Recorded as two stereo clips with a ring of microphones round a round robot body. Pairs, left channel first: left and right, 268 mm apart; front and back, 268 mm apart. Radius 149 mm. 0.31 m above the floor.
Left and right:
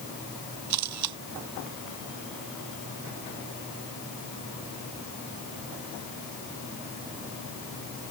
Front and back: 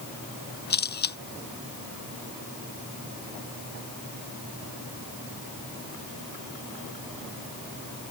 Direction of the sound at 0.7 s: 55° right.